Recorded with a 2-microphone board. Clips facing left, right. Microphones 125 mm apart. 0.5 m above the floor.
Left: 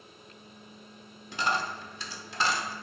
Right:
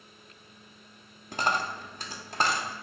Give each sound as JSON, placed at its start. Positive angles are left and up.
{"t": 1.3, "sound": "a dropped coin", "side_deg": -50, "distance_m": 0.5}